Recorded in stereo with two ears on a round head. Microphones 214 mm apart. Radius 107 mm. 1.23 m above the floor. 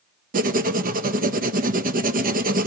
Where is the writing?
35° right (ahead or behind), 0.5 m.